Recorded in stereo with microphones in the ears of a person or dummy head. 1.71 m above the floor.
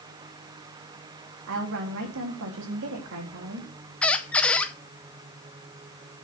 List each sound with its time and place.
1.5 s a woman speaking: 70° right (ahead or behind), 3 m
4.0 s a squeak: 5° left (ahead or behind), 0.6 m